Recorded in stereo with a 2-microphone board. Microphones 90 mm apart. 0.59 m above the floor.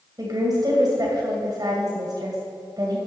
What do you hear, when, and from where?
0.2 s a woman speaking: 45° right (ahead or behind), 2.5 m